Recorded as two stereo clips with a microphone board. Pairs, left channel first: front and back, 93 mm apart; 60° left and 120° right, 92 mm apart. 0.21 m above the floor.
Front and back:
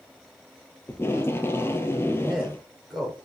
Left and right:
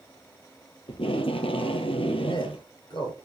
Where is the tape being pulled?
65° left, 1.2 m.